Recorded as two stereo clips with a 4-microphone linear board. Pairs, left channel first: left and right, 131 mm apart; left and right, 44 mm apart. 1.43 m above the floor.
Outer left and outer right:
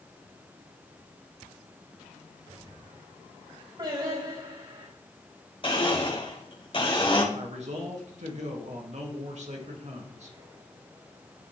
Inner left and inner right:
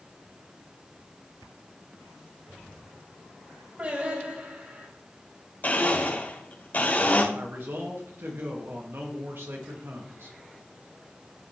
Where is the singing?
35° right (ahead or behind), 4 m.